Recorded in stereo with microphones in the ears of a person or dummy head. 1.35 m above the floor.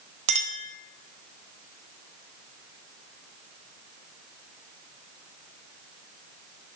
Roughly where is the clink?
Right.